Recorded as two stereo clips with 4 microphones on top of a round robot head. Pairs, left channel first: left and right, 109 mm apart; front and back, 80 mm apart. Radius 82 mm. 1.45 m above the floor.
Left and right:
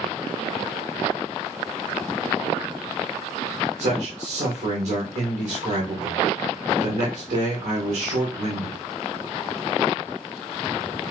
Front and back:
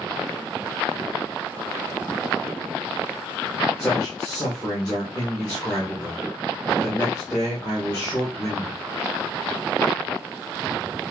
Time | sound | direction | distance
3.8 | a man speaking | 100° right | 1.9 m